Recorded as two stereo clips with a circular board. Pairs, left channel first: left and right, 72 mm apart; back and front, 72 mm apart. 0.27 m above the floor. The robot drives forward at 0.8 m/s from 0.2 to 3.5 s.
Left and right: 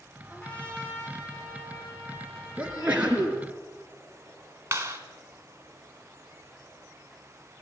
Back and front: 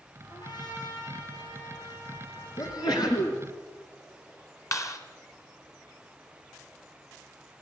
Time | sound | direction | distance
0.3 | a trumpet | 165° left | 5.5 m
2.6 | a sneeze | 160° right | 3.5 m
4.7 | a clap | 140° right | 2 m